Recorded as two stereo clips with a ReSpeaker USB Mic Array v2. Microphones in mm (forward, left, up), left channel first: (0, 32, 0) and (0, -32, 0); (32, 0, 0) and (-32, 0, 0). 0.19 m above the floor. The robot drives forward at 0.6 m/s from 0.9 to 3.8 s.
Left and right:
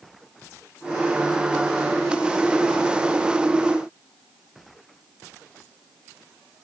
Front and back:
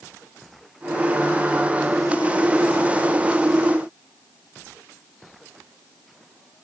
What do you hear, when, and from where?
Only background noise.